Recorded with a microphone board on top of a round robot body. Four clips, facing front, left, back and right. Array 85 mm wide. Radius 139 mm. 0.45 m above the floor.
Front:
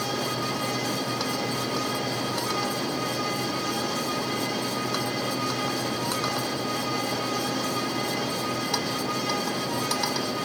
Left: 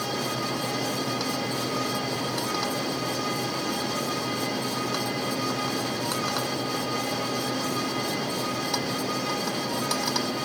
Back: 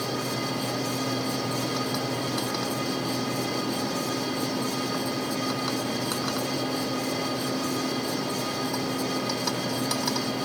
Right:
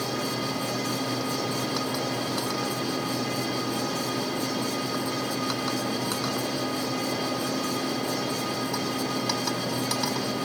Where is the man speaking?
No man speaking in this recording.